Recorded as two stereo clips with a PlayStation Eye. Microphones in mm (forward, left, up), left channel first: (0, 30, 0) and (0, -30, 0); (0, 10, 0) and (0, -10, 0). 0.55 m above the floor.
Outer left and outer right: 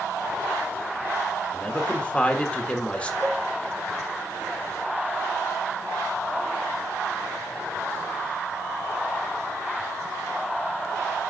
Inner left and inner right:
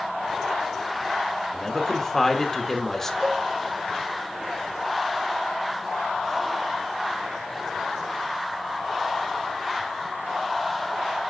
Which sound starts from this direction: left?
A man speaking, at 1.5 s.